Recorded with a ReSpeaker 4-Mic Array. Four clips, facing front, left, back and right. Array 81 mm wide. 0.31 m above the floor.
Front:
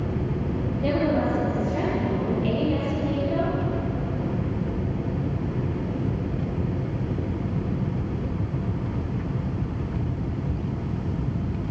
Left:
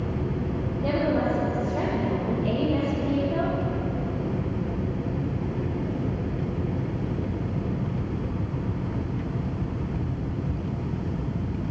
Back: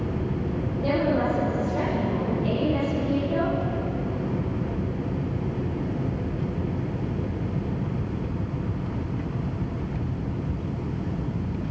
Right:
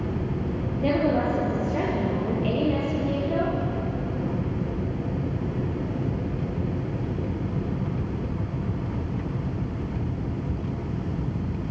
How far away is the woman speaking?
About 9.5 m.